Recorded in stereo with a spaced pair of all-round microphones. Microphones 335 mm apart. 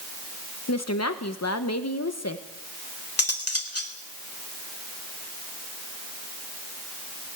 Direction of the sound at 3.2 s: 45° left (ahead or behind).